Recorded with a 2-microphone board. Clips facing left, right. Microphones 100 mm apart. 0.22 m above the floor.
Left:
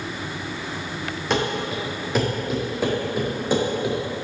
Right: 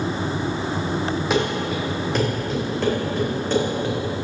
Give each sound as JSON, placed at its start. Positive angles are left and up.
{"t": 1.3, "sound": "running footsteps", "side_deg": -5, "distance_m": 2.5}